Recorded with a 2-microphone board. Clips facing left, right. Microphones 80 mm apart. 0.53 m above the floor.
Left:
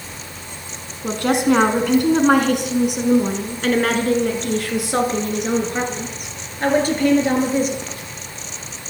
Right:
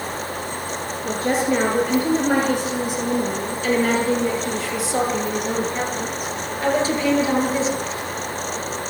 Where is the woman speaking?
80° left, 5.5 m; by 7.8 s 50° left (ahead or behind), 10 m.